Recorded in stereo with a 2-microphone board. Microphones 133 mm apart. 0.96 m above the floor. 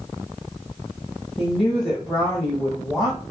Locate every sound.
1.4 s a woman speaking: centre (ahead or behind), 1.4 m